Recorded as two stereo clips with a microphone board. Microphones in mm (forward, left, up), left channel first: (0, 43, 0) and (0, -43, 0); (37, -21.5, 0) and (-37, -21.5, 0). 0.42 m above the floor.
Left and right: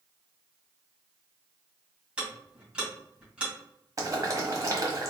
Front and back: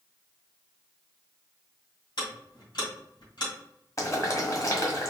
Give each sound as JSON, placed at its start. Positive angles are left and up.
{"t": 2.2, "sound": "ticking", "azimuth_deg": -15, "distance_m": 2.5}
{"t": 4.0, "sound": "boiling", "azimuth_deg": -45, "distance_m": 1.5}